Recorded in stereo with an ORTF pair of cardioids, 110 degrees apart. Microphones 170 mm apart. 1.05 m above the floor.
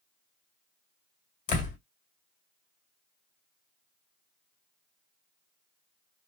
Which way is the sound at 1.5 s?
50° left.